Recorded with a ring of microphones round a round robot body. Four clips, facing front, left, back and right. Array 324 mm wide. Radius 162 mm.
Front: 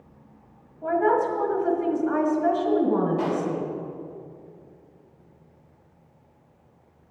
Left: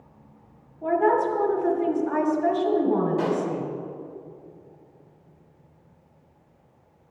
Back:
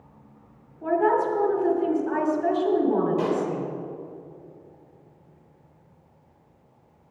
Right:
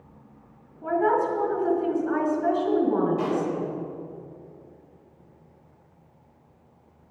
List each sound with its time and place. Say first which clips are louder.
0.8 s a woman speaking: left 2 dB, even; 140° left, 2 m
3.2 s a pop: left 1 dB, back 1 dB; 155° left, 1.9 m